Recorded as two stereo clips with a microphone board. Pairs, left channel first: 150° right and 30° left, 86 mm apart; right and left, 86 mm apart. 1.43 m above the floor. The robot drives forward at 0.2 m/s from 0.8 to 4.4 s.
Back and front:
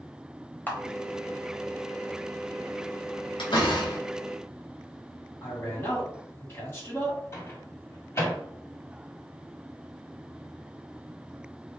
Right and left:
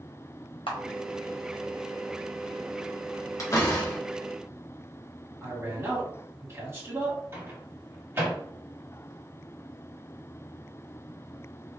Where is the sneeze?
No sneeze in this recording.